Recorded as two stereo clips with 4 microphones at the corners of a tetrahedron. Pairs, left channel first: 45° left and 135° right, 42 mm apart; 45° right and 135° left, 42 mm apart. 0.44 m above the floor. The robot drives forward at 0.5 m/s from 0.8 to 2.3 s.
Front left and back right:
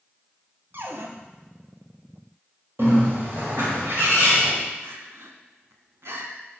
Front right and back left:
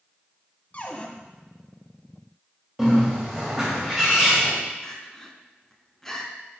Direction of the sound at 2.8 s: 150° right.